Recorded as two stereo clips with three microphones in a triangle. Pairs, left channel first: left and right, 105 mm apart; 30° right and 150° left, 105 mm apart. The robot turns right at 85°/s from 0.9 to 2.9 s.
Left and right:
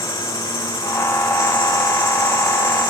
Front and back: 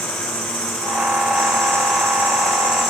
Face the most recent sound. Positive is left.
turn(degrees=-45)